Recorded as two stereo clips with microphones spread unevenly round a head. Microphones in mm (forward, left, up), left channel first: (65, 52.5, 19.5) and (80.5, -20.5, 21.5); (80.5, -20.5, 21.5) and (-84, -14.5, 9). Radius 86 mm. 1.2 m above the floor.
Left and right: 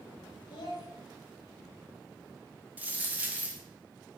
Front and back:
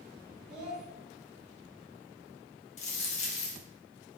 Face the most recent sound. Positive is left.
turn(degrees=-20)